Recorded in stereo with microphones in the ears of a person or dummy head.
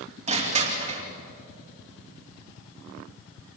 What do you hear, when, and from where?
0.3 s crushing: 30° right (ahead or behind), 3 m